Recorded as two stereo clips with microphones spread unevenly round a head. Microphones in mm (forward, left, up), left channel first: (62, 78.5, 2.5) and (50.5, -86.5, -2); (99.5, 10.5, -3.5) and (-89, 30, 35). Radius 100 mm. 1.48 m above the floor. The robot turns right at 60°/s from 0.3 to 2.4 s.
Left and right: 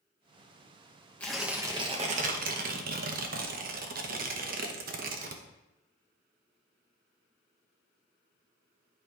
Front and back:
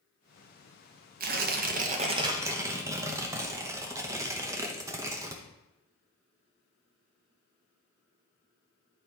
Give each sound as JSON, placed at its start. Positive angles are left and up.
{"t": 1.2, "sound": "tearing paper", "azimuth_deg": 165, "distance_m": 0.8}